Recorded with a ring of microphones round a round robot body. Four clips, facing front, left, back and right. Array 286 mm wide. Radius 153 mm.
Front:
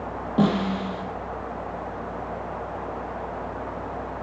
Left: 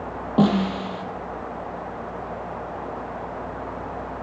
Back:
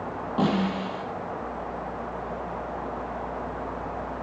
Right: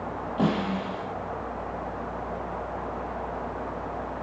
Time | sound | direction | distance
0.4 | a snare drum | 65° left | 6.5 m